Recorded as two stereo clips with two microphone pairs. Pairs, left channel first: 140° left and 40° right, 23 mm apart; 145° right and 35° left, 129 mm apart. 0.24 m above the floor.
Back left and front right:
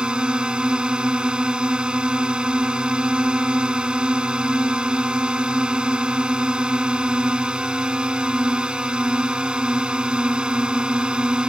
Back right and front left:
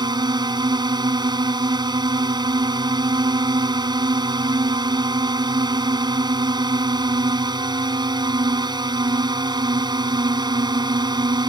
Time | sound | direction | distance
0.0 | a drone | 10° right | ?